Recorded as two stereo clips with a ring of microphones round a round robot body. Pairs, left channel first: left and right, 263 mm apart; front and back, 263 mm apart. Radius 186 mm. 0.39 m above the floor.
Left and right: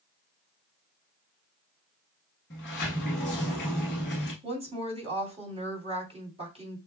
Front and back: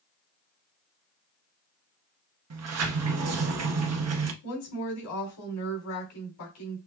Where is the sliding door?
155° left, 1.0 m.